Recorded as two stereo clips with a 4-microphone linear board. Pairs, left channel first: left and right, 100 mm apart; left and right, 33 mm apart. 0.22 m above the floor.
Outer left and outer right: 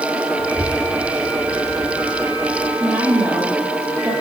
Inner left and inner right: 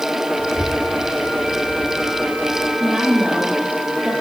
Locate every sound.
0.4 s a child speaking: 40° left (ahead or behind), 8 m; by 2.7 s 35° left (ahead or behind), 7 m
2.8 s a woman speaking: 10° right (ahead or behind), 5 m